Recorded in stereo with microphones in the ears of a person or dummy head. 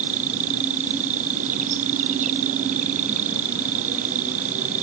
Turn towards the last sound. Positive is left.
turn(degrees=-45)  # may be behind; listen again after turning